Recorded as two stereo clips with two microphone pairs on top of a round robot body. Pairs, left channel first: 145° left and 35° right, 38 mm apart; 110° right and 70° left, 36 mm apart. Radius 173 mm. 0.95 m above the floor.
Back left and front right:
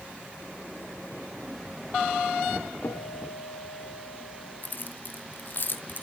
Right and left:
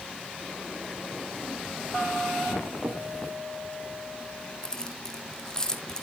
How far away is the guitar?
About 1.5 m.